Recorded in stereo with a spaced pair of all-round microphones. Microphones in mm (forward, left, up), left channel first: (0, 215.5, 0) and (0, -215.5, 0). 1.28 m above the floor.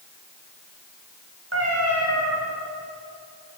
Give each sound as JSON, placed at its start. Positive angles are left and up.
{"t": 1.5, "sound": "a cat meowing", "side_deg": -35, "distance_m": 1.8}